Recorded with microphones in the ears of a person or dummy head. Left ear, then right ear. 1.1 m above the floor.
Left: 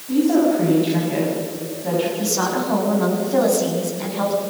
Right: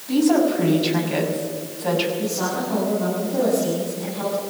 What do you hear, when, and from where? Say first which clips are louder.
0.1 s a woman speaking: left 1 dB; 40° right (ahead or behind), 7 m
2.2 s a woman speaking: left 3 dB; 65° left (ahead or behind), 7 m